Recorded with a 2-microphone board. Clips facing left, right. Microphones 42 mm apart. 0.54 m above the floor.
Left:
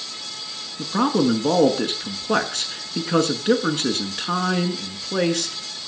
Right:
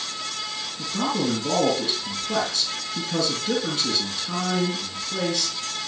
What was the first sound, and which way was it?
A man speaking, 50° left (ahead or behind).